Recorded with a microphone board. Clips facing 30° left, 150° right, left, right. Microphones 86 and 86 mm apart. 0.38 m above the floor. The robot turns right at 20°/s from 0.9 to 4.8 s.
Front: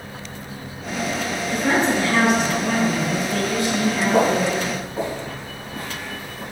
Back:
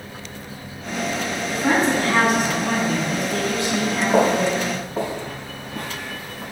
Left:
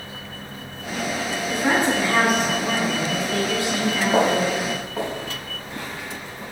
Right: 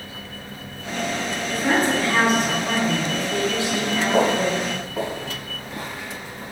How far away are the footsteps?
About 3 m.